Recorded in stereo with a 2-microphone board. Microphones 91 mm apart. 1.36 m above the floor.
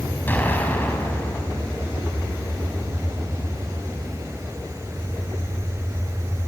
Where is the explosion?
20° left (ahead or behind), 5.5 m.